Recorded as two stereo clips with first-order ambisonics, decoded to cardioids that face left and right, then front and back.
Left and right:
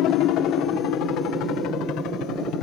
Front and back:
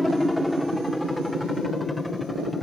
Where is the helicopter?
85° left.